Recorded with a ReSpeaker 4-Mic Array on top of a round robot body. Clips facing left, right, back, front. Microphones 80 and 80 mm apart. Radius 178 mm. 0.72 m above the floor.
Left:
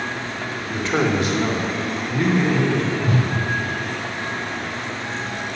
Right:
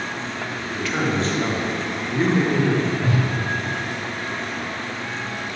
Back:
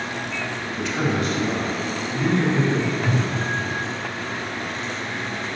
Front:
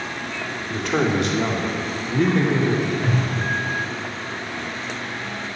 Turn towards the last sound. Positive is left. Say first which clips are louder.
# left 1 dB, even
turn(degrees=-85)